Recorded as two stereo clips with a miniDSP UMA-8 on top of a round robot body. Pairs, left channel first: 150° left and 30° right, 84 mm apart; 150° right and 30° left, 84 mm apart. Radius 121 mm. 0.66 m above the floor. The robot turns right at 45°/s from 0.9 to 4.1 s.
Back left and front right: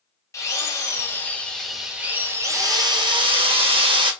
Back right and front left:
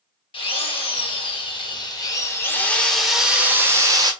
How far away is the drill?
About 1.8 m.